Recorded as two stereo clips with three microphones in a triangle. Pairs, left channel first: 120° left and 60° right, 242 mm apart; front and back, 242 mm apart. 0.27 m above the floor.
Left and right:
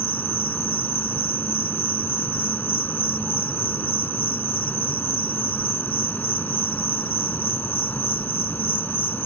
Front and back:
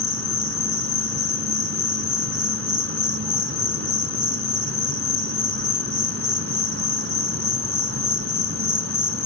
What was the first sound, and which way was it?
An insect, 160° right.